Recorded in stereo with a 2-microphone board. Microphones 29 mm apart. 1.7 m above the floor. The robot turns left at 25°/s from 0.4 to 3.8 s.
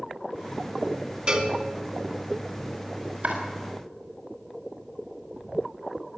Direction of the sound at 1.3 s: 40° right (ahead or behind).